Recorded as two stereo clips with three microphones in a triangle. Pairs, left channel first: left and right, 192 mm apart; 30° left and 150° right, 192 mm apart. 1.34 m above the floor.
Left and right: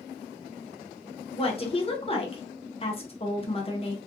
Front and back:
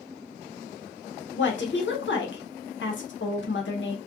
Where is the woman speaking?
35° left, 0.8 m.